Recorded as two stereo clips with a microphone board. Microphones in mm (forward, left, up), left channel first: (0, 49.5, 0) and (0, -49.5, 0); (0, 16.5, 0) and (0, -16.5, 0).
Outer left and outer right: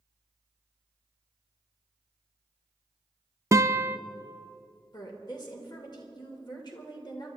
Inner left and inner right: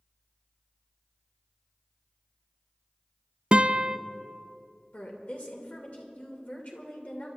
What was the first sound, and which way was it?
A guitar, 30° right (ahead or behind).